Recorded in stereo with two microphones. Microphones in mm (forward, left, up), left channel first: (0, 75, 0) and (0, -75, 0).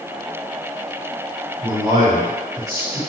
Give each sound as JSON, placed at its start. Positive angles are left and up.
{"t": 1.6, "sound": "a man speaking", "side_deg": -35, "distance_m": 1.6}